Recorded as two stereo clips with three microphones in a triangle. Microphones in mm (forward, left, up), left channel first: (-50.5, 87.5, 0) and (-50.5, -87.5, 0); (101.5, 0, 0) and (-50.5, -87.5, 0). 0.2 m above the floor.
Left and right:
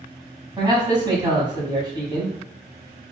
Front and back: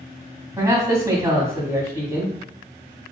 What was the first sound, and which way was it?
A man speaking, 100° right.